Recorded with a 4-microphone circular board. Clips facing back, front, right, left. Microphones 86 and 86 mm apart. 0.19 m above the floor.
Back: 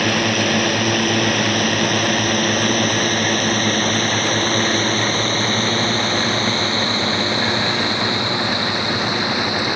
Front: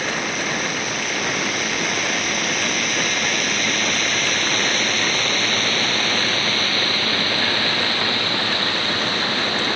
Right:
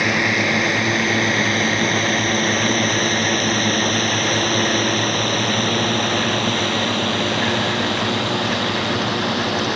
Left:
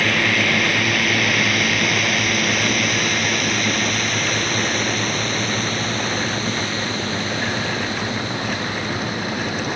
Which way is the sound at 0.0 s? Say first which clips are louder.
Back 6 dB, right 1 dB; 160° right.